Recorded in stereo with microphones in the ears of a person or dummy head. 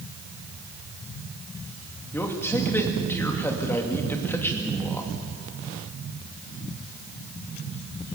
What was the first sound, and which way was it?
A man speaking, 10° left (ahead or behind).